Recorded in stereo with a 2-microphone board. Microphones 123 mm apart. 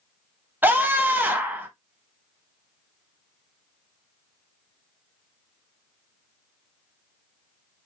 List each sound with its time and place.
0.6 s a scream: 15° right (ahead or behind), 1.1 m